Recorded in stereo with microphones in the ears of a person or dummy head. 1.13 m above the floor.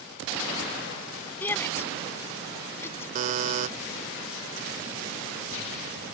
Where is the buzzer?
45° right (ahead or behind).